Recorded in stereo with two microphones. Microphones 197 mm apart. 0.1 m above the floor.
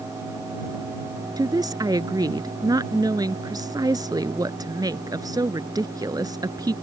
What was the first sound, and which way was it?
A woman speaking, 20° right (ahead or behind).